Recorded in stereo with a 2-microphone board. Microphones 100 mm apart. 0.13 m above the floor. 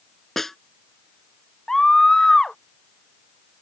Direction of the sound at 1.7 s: 5° left (ahead or behind).